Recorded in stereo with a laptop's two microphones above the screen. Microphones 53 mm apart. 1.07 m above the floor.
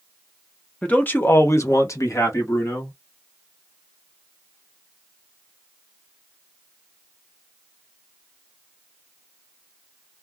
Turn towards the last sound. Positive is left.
turn(degrees=65)  # may be behind; listen again after turning